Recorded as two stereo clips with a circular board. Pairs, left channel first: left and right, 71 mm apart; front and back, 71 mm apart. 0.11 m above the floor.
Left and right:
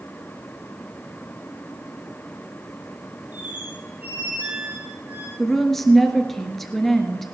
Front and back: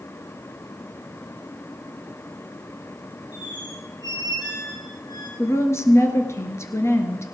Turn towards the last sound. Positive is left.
turn(degrees=5)